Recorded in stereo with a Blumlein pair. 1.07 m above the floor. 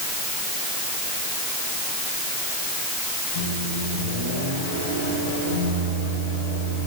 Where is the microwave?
60° left, 6 m.